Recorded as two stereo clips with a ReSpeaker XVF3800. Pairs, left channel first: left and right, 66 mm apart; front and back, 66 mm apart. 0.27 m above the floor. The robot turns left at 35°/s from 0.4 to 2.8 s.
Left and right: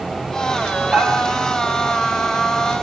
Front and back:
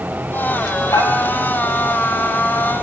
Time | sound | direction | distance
0.9 | dishes clattering | 15° right | 4 m